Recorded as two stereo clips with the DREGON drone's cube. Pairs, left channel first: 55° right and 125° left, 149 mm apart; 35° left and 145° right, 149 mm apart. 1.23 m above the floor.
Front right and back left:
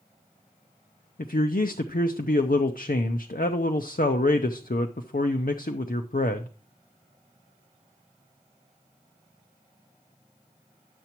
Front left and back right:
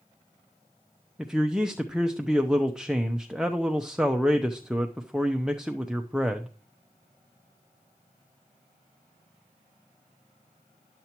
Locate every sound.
1.2 s a man speaking: 60° right, 0.6 m